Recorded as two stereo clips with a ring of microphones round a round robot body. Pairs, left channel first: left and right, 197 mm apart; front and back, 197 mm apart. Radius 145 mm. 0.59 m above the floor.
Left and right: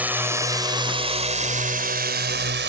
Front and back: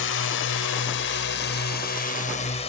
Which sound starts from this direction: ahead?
A drone, at 0.0 s.